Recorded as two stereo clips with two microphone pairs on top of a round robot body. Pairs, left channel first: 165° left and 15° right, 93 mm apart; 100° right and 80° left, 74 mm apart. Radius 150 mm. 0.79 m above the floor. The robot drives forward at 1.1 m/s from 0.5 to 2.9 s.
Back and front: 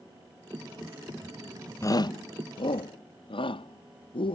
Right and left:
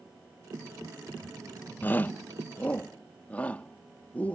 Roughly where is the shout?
Behind right.